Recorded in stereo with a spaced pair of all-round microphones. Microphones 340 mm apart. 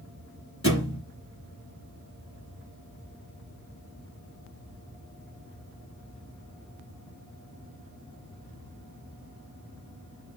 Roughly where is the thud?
Left.